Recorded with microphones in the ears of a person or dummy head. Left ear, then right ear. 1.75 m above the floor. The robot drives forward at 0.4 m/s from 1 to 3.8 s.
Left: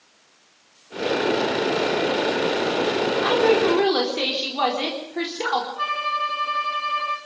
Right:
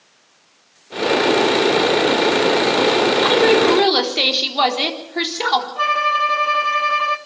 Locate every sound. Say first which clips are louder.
3.2 s a woman speaking: right 3 dB; 25° right (ahead or behind), 4 m
5.8 s a violin: right 7 dB; 30° right (ahead or behind), 1.2 m